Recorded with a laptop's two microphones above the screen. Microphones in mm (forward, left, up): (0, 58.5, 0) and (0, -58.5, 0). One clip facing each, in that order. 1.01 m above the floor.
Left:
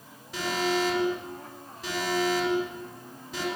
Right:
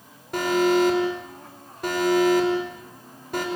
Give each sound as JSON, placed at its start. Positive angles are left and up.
{"t": 0.3, "sound": "an alarm", "side_deg": -55, "distance_m": 6.0}